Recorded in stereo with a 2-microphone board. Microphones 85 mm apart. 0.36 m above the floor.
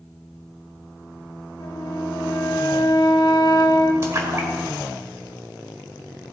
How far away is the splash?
About 1.7 m.